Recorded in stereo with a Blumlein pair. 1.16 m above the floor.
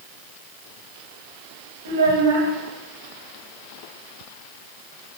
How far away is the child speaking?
About 1.2 m.